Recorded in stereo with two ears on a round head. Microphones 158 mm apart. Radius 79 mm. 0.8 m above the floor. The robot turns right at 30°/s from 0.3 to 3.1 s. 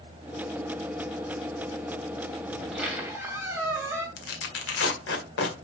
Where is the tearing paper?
70° left (ahead or behind), 1.9 m.